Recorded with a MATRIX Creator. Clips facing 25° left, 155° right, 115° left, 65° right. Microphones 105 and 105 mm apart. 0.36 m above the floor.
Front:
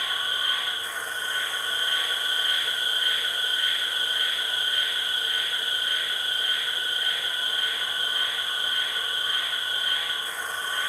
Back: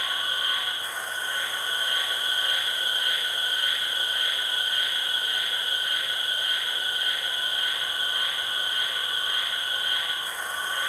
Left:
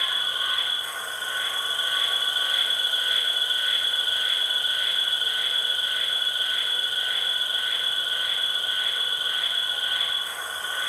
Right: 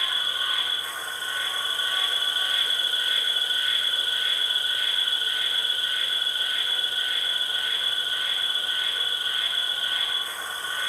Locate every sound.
0.0 s an insect: 140° left, 1.4 m